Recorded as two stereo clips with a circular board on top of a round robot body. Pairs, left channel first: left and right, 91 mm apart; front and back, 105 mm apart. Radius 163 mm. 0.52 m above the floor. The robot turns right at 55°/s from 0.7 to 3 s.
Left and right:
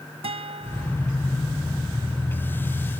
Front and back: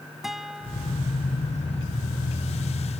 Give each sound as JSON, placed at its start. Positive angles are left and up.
{"t": 0.2, "sound": "a guitar", "azimuth_deg": -90}